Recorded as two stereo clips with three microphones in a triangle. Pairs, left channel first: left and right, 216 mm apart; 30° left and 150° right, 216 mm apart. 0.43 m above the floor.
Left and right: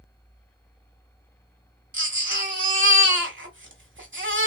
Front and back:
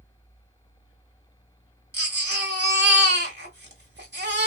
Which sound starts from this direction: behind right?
A baby crying, at 1.9 s.